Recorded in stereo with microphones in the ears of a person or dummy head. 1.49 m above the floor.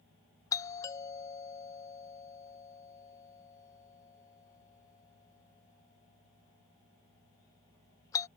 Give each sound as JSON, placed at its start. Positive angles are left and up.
{"t": 0.5, "sound": "a doorbell", "side_deg": 20}